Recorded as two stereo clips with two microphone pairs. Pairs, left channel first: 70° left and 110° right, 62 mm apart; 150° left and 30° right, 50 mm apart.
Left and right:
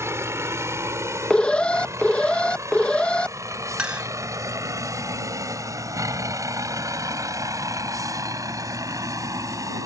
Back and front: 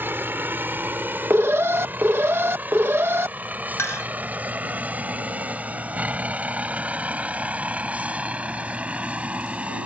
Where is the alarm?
Straight ahead.